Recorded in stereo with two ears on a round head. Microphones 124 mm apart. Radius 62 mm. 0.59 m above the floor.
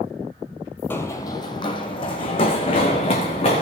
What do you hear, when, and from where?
0.9 s running footsteps: 15° left (ahead or behind), 0.6 m; by 3.6 s 45° left (ahead or behind), 2.5 m